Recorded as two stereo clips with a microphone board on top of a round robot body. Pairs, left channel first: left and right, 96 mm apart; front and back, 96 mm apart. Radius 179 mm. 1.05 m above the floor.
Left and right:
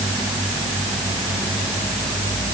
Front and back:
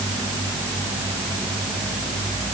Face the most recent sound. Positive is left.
No sound to turn to.